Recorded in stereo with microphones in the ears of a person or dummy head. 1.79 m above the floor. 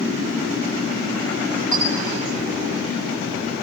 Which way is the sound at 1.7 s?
15° left (ahead or behind).